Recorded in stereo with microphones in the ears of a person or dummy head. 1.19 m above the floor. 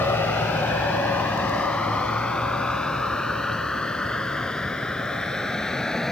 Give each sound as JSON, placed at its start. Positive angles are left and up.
{"t": 0.0, "sound": "a vehicle", "side_deg": 5}